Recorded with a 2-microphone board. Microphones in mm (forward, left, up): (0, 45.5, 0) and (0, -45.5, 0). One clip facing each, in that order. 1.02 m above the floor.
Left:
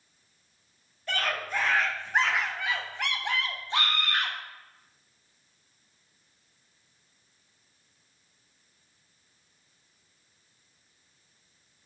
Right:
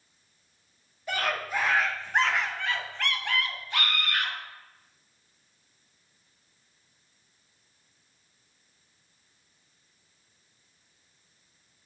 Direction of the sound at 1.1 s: 10° right (ahead or behind).